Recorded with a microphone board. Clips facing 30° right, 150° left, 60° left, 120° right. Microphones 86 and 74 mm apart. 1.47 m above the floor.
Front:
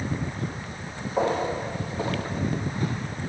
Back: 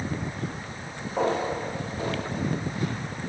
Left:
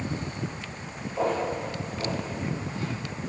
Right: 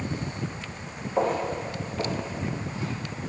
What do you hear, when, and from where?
1.2 s footsteps: 115° right, 3 m; by 2.9 s 60° right, 2.5 m